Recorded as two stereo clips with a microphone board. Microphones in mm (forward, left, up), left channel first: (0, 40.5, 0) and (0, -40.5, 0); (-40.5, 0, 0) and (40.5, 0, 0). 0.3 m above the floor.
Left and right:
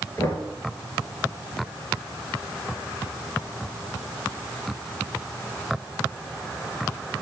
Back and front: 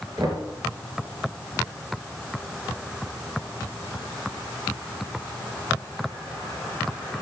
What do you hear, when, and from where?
0.2 s knocking: 35° left, 3.5 m